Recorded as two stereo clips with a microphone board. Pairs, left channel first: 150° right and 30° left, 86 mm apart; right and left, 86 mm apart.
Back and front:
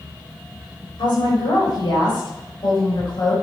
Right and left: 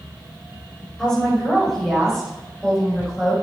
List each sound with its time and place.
1.0 s a woman speaking: 170° right, 5 m; by 3.3 s 175° right, 6 m